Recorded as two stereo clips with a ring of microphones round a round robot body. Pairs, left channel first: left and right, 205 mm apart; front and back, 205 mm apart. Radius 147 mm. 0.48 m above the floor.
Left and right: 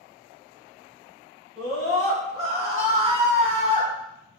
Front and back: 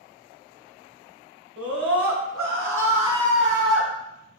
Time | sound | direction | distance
1.6 | a scream | straight behind | 3.5 m